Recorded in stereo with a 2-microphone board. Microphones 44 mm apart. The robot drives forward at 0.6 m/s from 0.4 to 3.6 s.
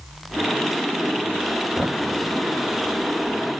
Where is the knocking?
5° right (ahead or behind), 3 m.